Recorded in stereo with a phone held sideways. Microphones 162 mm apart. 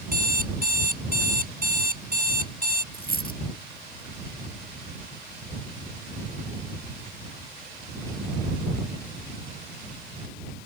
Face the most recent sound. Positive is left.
turn(degrees=60)  # may be behind; listen again after turning